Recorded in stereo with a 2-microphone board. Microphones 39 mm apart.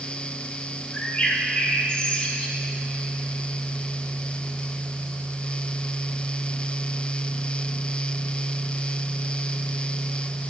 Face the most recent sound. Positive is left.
turn(degrees=30)  # may be behind; listen again after turning